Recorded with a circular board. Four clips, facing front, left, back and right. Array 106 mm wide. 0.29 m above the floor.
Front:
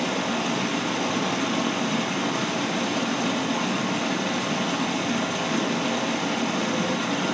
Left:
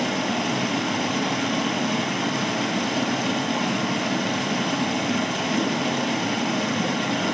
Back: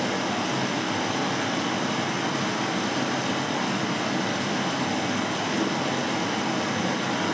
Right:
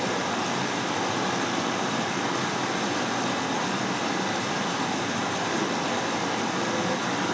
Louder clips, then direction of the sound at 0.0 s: Left 3 dB, front 1 dB; 90° left.